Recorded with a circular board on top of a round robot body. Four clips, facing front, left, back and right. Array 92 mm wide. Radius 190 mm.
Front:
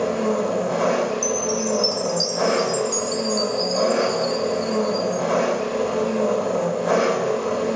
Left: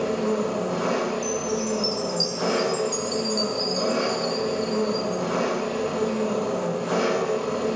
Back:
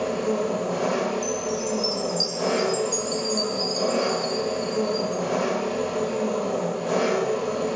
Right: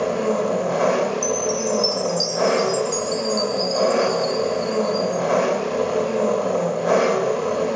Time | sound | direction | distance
0.0 | an engine running | 65° right | 2.5 m
1.2 | a chime | 50° right | 0.7 m